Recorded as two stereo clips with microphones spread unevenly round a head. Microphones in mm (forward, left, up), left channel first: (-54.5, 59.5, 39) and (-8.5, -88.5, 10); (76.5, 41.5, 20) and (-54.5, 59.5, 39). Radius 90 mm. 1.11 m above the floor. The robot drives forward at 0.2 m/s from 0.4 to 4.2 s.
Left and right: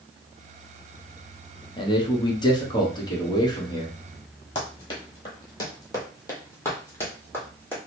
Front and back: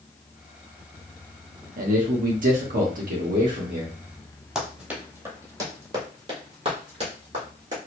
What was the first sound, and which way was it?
A man speaking, 170° left.